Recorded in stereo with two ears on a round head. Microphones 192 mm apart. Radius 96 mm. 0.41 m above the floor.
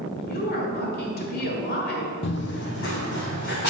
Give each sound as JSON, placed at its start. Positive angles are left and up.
{"t": 0.2, "sound": "a woman speaking", "side_deg": 50, "distance_m": 1.5}
{"t": 2.2, "sound": "running footsteps", "side_deg": 60, "distance_m": 0.9}